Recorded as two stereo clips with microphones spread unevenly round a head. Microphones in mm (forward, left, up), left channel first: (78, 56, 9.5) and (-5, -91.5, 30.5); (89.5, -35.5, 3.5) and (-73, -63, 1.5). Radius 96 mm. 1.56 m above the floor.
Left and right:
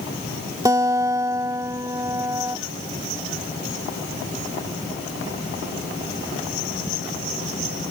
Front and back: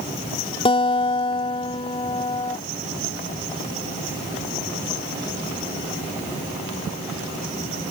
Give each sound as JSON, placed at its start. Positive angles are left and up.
{"t": 0.7, "sound": "a guitar", "azimuth_deg": -50}